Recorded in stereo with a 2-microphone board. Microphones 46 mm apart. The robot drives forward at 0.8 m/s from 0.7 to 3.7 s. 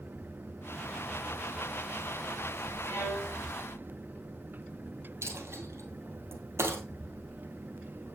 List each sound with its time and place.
2.8 s a violin: 65° left (ahead or behind), 3.5 m; by 3.4 s 60° left (ahead or behind), 3.5 m
5.2 s a dropped coin: 70° right (ahead or behind), 1.9 m